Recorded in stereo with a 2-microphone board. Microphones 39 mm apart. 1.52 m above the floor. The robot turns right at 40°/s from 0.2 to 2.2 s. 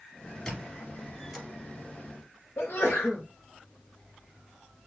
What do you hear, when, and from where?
0.5 s a squeak: 20° left (ahead or behind), 1.6 m; by 1.5 s centre (ahead or behind), 1.6 m
2.6 s a sneeze: 75° left (ahead or behind), 0.8 m